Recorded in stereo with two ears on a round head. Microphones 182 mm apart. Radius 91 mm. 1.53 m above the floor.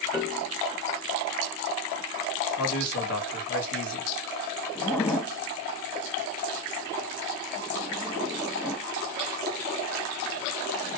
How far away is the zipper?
About 1.6 m.